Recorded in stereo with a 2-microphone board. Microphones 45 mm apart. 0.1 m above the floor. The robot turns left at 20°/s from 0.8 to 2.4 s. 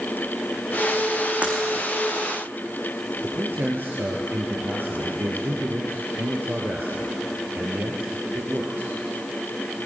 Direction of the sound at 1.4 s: 35° right (ahead or behind).